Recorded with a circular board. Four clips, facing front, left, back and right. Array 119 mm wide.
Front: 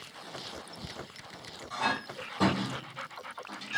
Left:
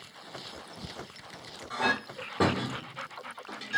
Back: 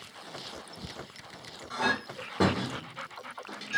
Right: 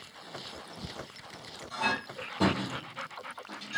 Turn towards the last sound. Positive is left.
turn(degrees=135)